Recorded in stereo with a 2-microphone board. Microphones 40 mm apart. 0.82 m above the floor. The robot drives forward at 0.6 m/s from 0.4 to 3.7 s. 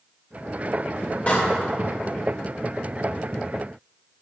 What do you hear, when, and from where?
1.3 s a door slam: 35° left (ahead or behind), 2.5 m